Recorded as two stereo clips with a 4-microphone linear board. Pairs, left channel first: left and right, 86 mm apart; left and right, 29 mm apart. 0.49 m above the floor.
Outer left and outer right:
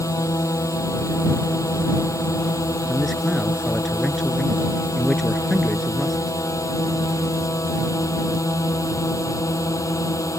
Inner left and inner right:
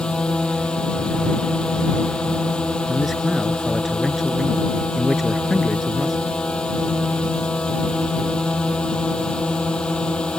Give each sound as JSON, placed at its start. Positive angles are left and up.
{"t": 0.0, "sound": "a drone", "side_deg": 40}
{"t": 2.9, "sound": "a man speaking", "side_deg": 5}